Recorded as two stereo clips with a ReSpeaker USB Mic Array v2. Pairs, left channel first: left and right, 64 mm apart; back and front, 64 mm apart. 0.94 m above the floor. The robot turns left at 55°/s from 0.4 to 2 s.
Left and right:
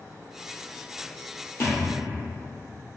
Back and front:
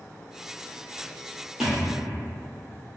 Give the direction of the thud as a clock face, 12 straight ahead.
9 o'clock.